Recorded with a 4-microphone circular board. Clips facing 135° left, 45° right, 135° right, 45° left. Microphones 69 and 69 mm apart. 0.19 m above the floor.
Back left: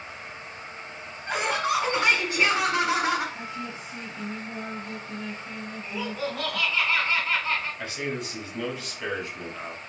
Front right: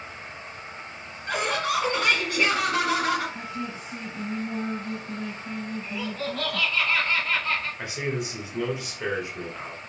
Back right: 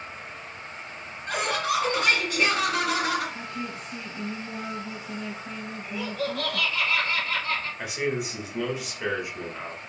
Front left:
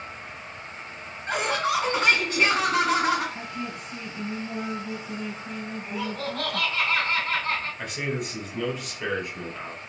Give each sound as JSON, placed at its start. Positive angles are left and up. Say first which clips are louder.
{"t": 1.3, "sound": "laughter", "louder": "even, front left 1 dB", "azimuth_deg": 80, "distance_m": 1.6}
{"t": 3.4, "sound": "a woman speaking", "louder": "front right 2 dB, even", "azimuth_deg": -30, "distance_m": 1.3}
{"t": 5.8, "sound": "laughter", "louder": "even, back right 2 dB", "azimuth_deg": 65, "distance_m": 1.6}
{"t": 7.8, "sound": "a man speaking", "louder": "front right 2 dB, back right 2 dB", "azimuth_deg": -70, "distance_m": 1.2}